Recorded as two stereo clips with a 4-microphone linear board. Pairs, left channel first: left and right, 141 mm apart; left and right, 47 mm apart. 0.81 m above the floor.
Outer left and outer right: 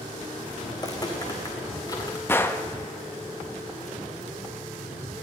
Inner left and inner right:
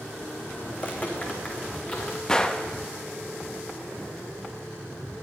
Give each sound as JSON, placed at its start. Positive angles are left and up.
{"t": 0.7, "sound": "footsteps", "side_deg": 25, "distance_m": 2.0}
{"t": 2.3, "sound": "a gunshot", "side_deg": 15, "distance_m": 0.8}